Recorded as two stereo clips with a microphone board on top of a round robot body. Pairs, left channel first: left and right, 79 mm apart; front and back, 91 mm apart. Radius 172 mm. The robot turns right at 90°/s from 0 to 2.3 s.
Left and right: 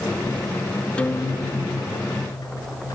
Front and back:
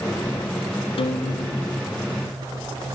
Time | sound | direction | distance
1.0 | a guitar | 15° left | 0.9 m